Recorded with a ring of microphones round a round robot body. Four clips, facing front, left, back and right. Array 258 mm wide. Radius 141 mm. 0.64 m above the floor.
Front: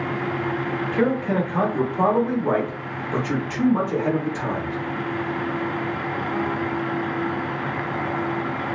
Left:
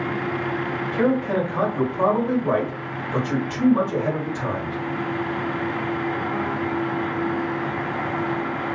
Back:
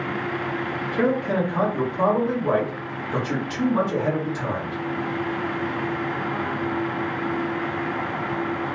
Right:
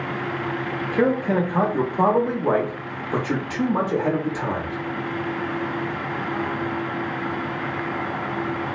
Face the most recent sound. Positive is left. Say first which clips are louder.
# right 1 dB, even
turn(degrees=-75)